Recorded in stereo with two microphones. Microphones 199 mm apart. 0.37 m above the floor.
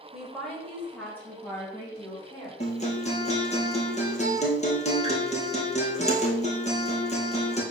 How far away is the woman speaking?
About 1.7 m.